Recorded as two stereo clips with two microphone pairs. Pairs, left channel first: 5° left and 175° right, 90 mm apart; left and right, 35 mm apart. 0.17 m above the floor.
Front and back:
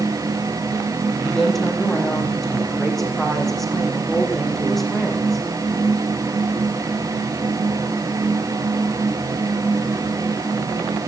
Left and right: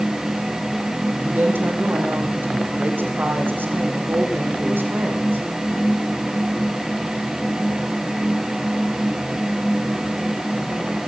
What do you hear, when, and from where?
1.2 s a woman speaking: 85° right, 6.5 m